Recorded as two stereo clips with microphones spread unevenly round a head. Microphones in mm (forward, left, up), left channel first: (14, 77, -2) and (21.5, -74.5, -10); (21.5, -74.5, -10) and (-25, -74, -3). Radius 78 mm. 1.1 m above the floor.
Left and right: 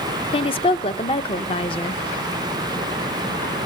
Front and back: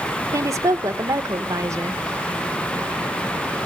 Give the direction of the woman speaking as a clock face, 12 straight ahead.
7 o'clock.